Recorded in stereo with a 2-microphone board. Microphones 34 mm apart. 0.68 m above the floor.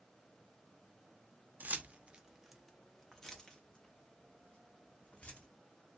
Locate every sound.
1.6 s keys jangling: 50° right (ahead or behind), 0.5 m; by 5.5 s 40° left (ahead or behind), 1.8 m